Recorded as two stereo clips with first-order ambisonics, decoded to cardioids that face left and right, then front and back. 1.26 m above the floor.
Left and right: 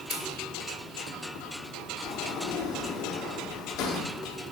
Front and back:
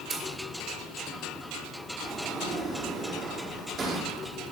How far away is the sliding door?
About 1.0 m.